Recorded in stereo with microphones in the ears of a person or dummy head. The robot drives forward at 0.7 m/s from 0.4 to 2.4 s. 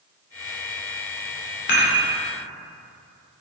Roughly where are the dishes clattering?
Left.